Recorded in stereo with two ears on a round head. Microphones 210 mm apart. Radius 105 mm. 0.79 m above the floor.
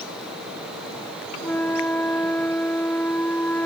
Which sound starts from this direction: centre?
A flute, at 1.4 s.